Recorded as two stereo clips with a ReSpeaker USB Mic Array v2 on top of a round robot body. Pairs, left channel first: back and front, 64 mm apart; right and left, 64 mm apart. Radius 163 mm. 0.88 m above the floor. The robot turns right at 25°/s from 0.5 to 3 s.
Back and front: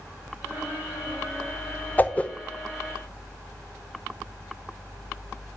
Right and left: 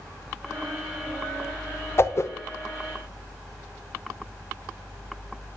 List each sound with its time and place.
2.0 s a whoosh: 125° right, 1.0 m; by 2.3 s 115° right, 1.0 m